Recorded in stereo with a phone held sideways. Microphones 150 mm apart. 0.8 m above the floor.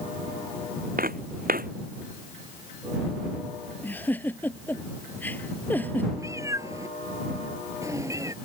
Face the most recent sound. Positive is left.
turn(degrees=-20)  # may be behind; listen again after turning